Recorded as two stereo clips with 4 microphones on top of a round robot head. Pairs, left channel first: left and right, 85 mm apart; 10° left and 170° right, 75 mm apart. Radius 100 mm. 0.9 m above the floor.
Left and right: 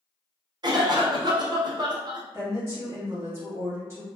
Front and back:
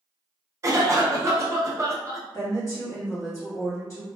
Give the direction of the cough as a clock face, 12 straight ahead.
4 o'clock.